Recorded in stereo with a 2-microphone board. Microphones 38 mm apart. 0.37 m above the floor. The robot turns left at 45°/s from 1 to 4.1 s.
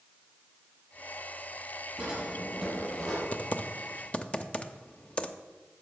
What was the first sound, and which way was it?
A drawer, 165° right.